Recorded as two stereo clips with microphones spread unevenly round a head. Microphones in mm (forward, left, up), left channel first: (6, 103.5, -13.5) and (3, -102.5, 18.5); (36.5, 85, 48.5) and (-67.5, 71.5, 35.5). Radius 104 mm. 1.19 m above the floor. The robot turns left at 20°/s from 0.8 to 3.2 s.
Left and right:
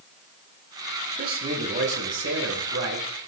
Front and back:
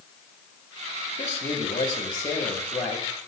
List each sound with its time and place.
1.2 s a man speaking: 40° right, 6 m; by 3.3 s 80° right, 6 m